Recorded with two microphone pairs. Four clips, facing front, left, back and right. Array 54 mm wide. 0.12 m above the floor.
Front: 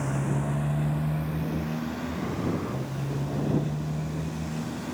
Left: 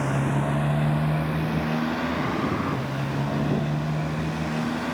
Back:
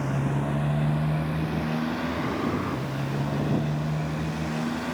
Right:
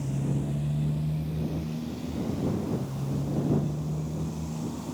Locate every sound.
0.0 s a motorcycle: 90° left; by 5.0 s 115° left